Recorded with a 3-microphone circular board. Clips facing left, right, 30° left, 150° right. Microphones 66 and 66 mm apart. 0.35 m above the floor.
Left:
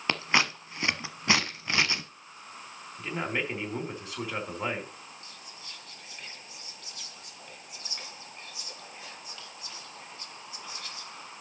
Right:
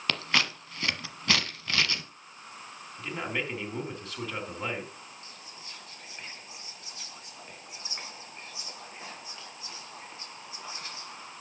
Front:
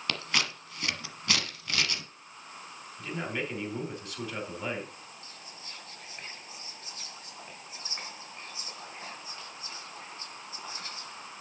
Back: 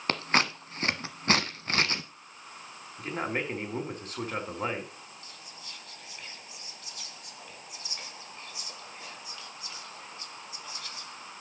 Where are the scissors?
160° left, 1.1 m.